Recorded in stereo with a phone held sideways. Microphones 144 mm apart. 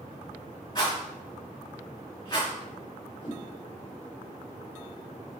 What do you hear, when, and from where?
0.8 s a rattle: 30° left (ahead or behind), 1.7 m
3.2 s a whoosh: 35° left (ahead or behind), 1.4 m